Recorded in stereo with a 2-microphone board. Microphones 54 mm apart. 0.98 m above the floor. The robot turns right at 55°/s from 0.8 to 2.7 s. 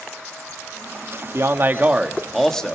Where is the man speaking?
55° right, 1.3 m; by 2.8 s 20° left, 1.3 m.